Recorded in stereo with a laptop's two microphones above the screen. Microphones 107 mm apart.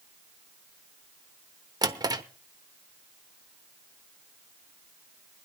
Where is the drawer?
40° right (ahead or behind), 0.9 m.